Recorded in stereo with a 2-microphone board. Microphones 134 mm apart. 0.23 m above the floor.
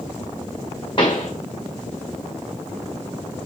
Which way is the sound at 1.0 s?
35° left (ahead or behind).